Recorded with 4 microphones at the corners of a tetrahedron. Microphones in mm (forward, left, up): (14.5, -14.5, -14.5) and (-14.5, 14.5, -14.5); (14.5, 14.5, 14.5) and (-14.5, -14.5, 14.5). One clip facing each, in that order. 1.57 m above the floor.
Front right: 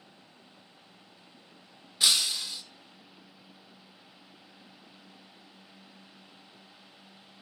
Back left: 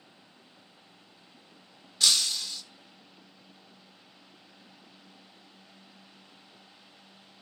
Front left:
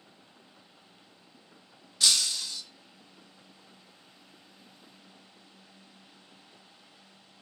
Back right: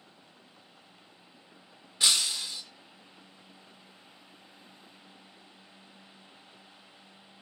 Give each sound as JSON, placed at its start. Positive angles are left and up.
{"t": 2.0, "sound": "breaking glass", "azimuth_deg": -95, "distance_m": 0.8}